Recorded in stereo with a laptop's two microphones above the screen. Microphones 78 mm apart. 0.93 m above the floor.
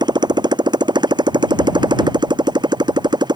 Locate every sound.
0.0 s a motorcycle: 75° right (ahead or behind)